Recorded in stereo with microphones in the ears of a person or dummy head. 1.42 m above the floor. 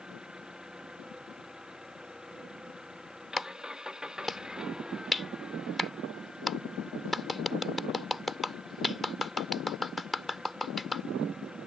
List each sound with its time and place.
0.0 s an engine running: 10° right (ahead or behind)
3.4 s a clap: 5° left (ahead or behind)